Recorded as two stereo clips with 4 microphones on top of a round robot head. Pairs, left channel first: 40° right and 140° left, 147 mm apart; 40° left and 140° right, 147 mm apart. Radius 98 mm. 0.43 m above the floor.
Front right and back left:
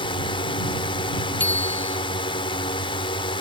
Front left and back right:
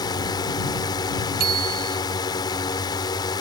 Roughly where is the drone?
Ahead.